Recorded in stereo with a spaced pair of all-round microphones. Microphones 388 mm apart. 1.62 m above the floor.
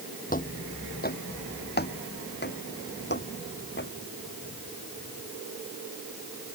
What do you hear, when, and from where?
0.3 s footsteps: 20° left (ahead or behind); by 3.9 s 30° left (ahead or behind)